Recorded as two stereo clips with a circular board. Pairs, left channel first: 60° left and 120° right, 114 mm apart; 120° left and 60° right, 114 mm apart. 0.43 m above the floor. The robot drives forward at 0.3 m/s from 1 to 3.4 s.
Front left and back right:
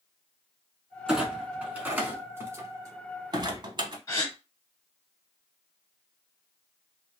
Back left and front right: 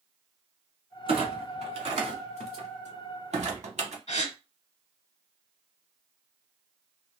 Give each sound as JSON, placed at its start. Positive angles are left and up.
{"t": 1.1, "sound": "a clunk", "azimuth_deg": -35, "distance_m": 1.1}
{"t": 4.1, "sound": "a gasp", "azimuth_deg": 125, "distance_m": 0.8}